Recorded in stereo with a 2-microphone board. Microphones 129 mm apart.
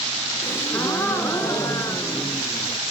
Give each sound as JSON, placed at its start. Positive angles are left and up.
{"t": 0.4, "sound": "a gasp", "side_deg": 20, "distance_m": 1.7}